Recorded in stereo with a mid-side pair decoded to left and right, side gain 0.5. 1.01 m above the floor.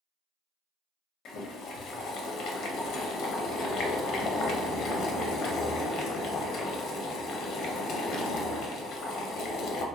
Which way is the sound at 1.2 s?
65° left.